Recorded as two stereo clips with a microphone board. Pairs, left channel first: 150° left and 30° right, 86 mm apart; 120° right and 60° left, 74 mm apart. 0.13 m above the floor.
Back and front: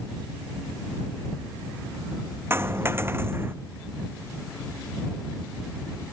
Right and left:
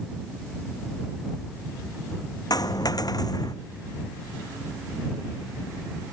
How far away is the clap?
No clap in this recording.